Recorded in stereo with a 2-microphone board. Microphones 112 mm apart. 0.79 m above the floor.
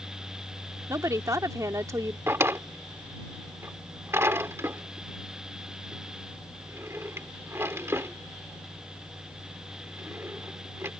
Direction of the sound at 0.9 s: 30° right (ahead or behind).